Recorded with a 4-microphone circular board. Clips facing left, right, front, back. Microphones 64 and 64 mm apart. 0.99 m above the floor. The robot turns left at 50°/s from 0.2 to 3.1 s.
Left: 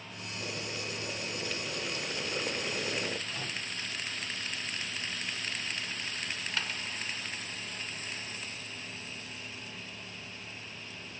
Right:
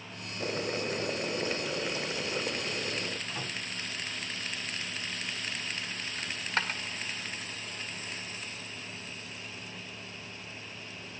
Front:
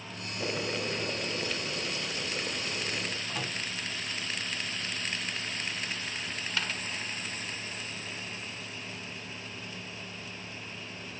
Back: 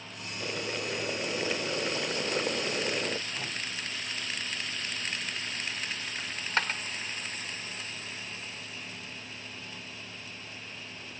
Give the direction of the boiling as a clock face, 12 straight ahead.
2 o'clock.